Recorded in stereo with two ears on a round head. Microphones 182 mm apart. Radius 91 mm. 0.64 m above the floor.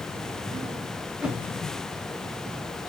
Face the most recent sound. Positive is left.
turn(degrees=-5)  # may be behind; listen again after turning